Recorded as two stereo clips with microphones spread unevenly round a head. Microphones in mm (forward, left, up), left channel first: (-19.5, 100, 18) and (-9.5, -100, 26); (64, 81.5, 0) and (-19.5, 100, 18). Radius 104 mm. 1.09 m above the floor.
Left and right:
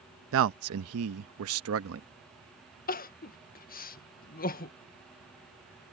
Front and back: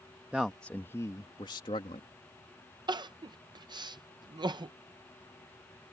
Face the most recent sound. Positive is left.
turn(degrees=130)